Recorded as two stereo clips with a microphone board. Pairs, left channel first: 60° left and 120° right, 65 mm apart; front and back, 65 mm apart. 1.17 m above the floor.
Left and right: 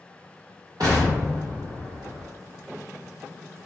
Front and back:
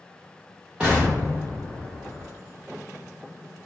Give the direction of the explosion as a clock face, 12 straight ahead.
4 o'clock.